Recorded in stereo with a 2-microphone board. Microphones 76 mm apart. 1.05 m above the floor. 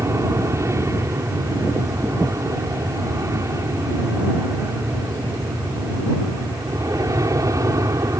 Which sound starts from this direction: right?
An aircraft, at 0.0 s.